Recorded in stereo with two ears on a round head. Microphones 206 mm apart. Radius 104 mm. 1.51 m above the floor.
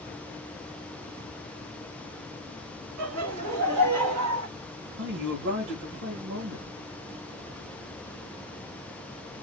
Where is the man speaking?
55° right (ahead or behind), 1.8 m.